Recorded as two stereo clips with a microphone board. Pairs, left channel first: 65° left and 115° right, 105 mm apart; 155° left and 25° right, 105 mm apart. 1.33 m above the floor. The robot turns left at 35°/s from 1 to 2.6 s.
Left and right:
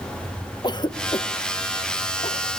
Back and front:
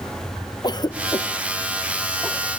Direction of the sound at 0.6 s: 110° left.